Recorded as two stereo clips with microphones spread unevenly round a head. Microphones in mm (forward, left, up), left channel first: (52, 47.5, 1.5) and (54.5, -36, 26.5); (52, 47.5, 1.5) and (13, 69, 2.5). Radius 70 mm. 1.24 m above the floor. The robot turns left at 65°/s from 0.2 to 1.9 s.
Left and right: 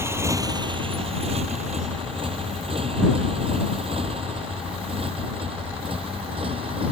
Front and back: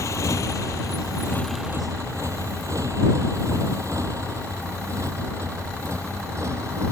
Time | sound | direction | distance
0.0 | a motorcycle | 30° right | ?